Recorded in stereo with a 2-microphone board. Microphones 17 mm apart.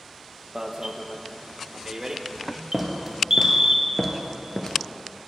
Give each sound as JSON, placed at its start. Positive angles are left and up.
{"t": 0.6, "sound": "an alarm", "side_deg": -30, "distance_m": 0.6}
{"t": 2.7, "sound": "footsteps", "side_deg": -5, "distance_m": 1.4}